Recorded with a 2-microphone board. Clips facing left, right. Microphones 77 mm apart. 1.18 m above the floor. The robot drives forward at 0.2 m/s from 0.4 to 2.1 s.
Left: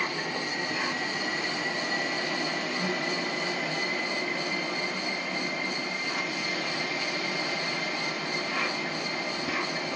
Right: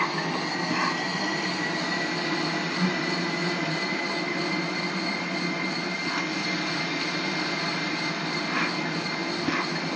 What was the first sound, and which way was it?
An insect, 70° right (ahead or behind).